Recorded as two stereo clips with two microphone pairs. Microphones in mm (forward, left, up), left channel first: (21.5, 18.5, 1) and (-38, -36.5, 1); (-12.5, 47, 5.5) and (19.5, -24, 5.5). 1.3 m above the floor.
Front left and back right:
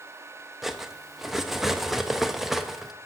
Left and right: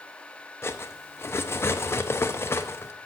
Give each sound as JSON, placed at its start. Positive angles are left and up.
{"t": 0.6, "sound": "cutlery clinking", "azimuth_deg": 140, "distance_m": 0.6}